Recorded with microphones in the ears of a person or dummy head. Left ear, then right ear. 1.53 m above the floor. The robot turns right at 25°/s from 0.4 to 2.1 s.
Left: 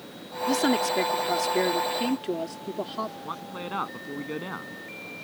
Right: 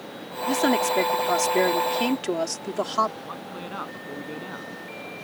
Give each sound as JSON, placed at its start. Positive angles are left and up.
{"t": 0.5, "sound": "a woman speaking", "azimuth_deg": -160}
{"t": 3.2, "sound": "a man speaking", "side_deg": 15}